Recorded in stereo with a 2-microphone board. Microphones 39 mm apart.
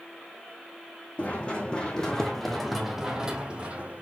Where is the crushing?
I don't hear crushing.